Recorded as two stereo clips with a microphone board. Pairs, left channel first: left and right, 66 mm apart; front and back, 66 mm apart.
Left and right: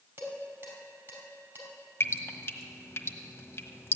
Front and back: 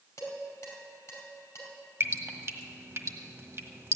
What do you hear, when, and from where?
0.2 s dishes clattering: 40° right, 4.5 m
2.0 s dripping: 135° left, 1.2 m